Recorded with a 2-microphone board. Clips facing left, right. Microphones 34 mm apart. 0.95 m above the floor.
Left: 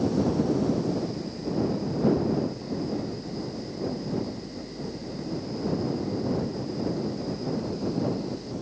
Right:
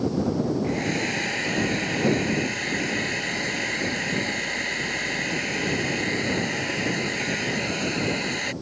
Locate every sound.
0.6 s a hair dryer: 80° right